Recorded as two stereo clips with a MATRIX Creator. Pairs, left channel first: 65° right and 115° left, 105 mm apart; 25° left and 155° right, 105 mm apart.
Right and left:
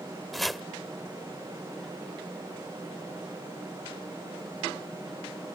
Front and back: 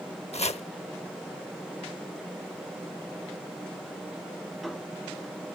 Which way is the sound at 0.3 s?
20° left.